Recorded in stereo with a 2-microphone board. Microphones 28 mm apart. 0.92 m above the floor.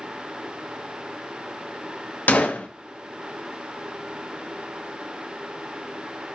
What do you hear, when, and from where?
2.3 s a gunshot: 70° left (ahead or behind), 0.5 m